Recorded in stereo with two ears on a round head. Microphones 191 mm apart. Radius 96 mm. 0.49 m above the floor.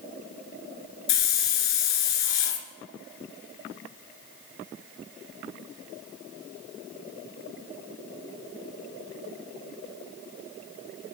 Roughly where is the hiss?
Left.